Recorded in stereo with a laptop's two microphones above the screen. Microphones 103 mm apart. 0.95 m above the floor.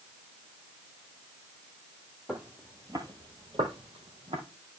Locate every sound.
2.3 s footsteps: 10° right (ahead or behind), 1.4 m; by 4.4 s 65° right (ahead or behind), 2.5 m